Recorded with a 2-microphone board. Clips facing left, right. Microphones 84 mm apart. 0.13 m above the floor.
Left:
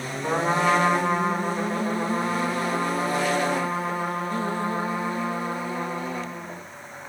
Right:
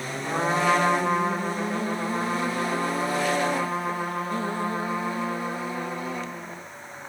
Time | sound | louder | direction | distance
0.2 | a trumpet | left 1 dB | 30° left (ahead or behind) | 8.5 m